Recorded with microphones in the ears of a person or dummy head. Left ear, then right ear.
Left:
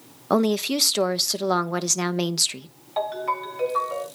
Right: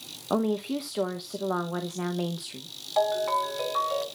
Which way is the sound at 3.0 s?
10° right (ahead or behind).